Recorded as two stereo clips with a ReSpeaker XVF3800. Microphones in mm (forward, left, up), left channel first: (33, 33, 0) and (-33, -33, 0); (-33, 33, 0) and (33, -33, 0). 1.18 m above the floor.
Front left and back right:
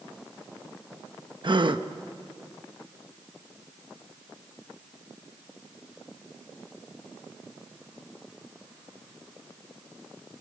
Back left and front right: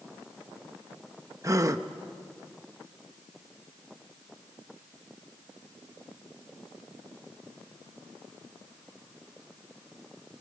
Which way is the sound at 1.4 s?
100° right.